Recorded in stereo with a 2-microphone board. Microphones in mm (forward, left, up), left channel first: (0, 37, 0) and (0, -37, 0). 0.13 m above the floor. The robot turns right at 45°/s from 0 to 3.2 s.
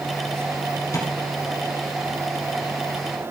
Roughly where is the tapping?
Left.